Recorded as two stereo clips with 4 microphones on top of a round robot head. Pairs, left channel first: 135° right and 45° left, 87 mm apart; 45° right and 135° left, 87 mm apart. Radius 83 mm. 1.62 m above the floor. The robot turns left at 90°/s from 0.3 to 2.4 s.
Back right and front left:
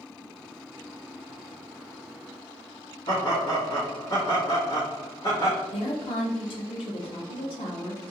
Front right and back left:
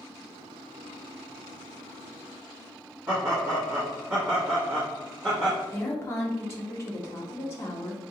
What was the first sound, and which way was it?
Laughter, 165° right.